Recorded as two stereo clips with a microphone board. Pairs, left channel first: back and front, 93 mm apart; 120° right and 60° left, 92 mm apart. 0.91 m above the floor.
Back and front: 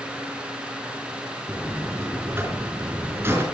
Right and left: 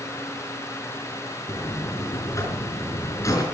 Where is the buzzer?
65° right, 4.5 m.